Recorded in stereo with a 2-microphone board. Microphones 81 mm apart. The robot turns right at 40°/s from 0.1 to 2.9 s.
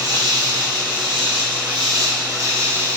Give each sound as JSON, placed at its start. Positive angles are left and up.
{"t": 0.0, "sound": "an insect", "azimuth_deg": -135, "distance_m": 0.8}